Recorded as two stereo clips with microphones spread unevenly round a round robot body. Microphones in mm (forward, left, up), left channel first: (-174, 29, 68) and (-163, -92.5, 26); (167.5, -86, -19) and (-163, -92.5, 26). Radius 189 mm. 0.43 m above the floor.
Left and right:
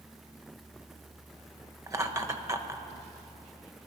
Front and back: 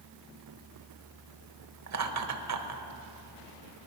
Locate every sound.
1.9 s laughter: 140° right, 1.6 m